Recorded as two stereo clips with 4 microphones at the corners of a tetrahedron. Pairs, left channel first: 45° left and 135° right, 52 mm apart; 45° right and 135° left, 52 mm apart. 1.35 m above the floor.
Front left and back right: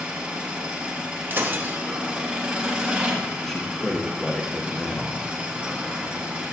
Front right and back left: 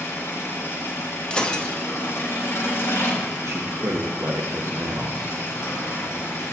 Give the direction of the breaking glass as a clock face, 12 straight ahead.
4 o'clock.